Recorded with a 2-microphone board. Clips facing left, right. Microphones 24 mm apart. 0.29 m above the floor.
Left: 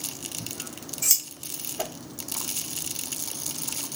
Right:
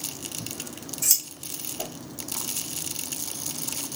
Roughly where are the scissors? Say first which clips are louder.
Right 1 dB; centre.